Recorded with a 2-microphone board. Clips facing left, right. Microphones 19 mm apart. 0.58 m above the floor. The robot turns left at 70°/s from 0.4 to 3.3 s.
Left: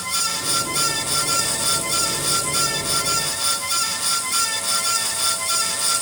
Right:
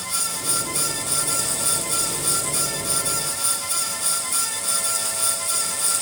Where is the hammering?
I don't hear hammering.